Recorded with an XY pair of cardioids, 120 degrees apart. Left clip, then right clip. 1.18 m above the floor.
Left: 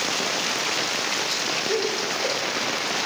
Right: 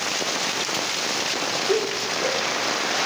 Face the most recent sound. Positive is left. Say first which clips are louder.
# right 1 dB
turn(degrees=-20)